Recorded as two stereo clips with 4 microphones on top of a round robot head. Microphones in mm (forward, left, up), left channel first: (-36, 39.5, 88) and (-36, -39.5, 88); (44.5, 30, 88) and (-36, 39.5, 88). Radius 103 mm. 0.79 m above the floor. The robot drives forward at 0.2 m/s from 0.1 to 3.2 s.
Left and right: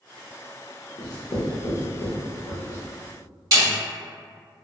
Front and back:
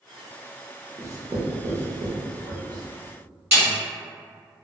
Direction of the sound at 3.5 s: 130° right.